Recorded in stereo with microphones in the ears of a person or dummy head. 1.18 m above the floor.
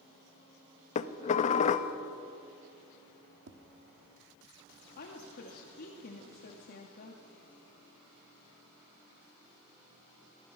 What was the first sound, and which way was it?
Dishes clattering, 40° left (ahead or behind).